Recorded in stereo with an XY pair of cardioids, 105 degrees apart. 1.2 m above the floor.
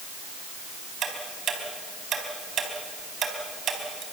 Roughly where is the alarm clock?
I don't hear an alarm clock.